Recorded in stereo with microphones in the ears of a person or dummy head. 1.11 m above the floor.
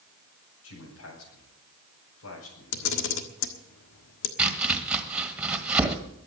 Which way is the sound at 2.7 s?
65° left (ahead or behind).